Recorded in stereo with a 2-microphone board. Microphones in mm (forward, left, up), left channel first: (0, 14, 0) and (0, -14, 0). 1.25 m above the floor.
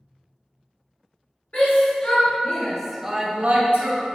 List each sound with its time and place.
1.5 s a shout: 45° left (ahead or behind), 1.6 m; by 4.0 s 70° right (ahead or behind), 1.0 m